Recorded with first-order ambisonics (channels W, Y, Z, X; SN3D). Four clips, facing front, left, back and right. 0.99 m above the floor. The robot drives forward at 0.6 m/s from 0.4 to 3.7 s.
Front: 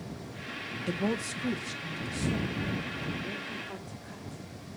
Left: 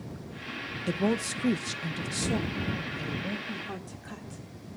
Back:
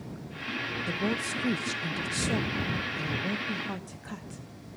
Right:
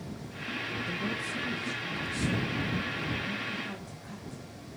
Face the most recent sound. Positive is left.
turn(degrees=160)